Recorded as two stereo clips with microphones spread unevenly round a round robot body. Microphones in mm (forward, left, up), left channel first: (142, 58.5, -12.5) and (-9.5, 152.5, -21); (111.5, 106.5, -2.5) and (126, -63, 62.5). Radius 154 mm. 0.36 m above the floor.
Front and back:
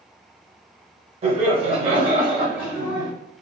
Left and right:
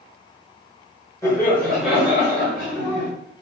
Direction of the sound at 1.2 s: 130° left.